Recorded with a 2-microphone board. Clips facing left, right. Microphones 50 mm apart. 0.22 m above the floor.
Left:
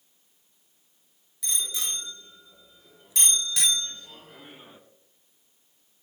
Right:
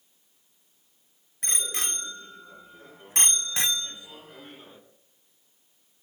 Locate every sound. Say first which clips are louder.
1.4 s a bicycle bell: right 1 dB; 45° right (ahead or behind), 2.5 m; by 4.8 s 10° left (ahead or behind), 1.5 m